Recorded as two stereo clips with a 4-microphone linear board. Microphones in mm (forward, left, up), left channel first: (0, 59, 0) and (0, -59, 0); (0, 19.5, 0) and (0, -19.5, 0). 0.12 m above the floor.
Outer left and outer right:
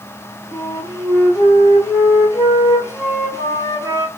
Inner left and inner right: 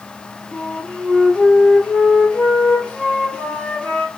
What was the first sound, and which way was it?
A flute, 25° left (ahead or behind).